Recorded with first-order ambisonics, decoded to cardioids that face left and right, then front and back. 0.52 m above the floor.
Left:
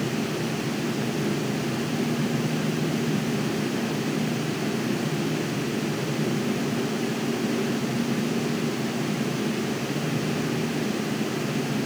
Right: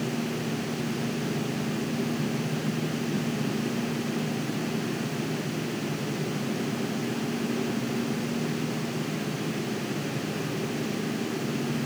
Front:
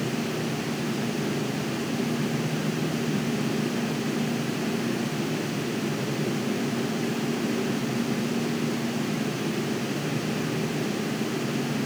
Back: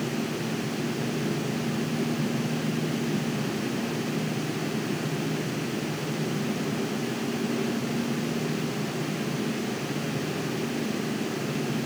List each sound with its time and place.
Only background noise.